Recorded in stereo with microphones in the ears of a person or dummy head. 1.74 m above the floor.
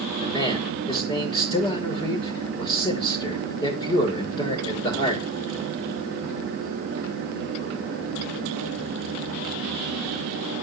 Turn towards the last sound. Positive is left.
turn(degrees=25)  # may be behind; listen again after turning